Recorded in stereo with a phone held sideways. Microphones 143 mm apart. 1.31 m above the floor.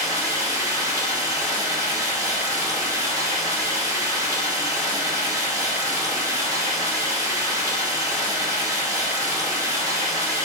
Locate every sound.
0.0 s running water: 20° right (ahead or behind), 0.9 m